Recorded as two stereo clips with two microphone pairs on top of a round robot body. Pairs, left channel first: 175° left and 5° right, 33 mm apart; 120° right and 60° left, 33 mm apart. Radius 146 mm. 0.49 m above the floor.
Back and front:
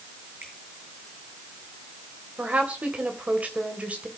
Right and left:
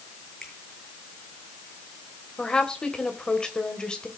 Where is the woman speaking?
50° right, 3 m.